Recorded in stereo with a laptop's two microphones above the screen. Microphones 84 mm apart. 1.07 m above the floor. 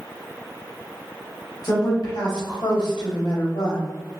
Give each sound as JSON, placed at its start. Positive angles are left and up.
{"t": 1.6, "sound": "a woman speaking", "side_deg": 40, "distance_m": 1.3}